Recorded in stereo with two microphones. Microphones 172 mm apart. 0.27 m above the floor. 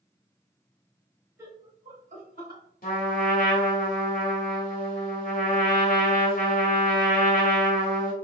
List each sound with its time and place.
1.4 s laughter: 15° right (ahead or behind), 1.1 m; by 2.6 s 60° right (ahead or behind), 2.5 m
2.8 s a trumpet: 55° left (ahead or behind), 1.1 m